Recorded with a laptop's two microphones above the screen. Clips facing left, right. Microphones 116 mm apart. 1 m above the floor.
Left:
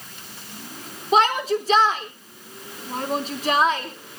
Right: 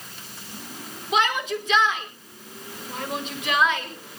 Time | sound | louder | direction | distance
1.1 | a shout | left 5 dB | 35° left (ahead or behind) | 3.5 m